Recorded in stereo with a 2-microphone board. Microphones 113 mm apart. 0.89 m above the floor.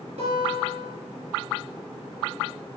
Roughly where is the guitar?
Right.